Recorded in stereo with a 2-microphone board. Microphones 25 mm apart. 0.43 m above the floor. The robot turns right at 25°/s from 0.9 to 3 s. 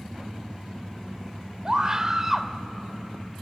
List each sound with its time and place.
1.6 s a scream: 25° right (ahead or behind), 1.2 m; by 2.5 s 10° right (ahead or behind), 1.2 m